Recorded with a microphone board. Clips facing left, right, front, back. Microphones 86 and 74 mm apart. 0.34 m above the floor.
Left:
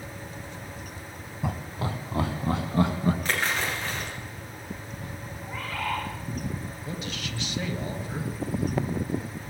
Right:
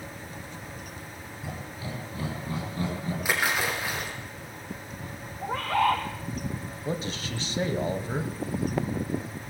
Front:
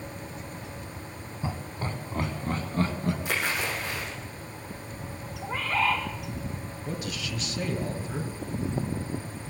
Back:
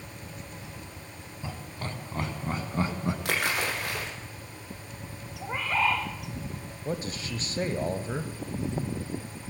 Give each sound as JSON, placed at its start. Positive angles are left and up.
{"t": 1.4, "sound": "laughter", "azimuth_deg": 70, "distance_m": 2.5}
{"t": 3.2, "sound": "a splash", "azimuth_deg": -170, "distance_m": 5.5}
{"t": 5.4, "sound": "a bird", "azimuth_deg": -110, "distance_m": 3.5}
{"t": 6.8, "sound": "a man speaking", "azimuth_deg": -140, "distance_m": 1.9}